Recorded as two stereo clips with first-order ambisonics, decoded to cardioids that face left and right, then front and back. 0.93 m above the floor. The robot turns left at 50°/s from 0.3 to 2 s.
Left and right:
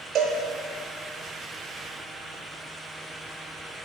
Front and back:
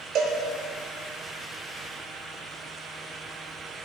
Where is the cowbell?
145° right, 1.5 m.